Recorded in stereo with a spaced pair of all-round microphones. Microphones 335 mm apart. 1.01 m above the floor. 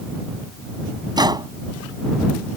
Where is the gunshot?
15° right (ahead or behind).